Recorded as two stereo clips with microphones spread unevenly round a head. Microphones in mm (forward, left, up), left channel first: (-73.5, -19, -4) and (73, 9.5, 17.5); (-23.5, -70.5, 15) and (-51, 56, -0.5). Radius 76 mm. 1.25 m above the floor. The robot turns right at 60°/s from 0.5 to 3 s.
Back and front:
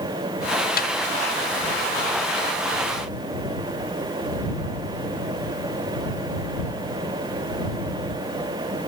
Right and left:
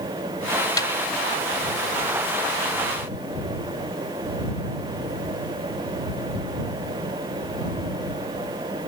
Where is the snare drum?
140° right; by 0.9 s 130° right.